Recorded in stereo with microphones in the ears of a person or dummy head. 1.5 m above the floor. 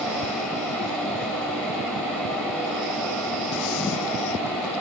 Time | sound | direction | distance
0.0 | a fan | 5° left (ahead or behind) | 7.5 m